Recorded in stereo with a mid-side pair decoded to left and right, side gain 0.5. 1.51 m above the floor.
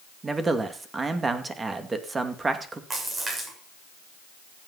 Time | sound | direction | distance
0.2 | a man speaking | 25° right | 2.5 m
2.9 | a splash | 35° right | 7 m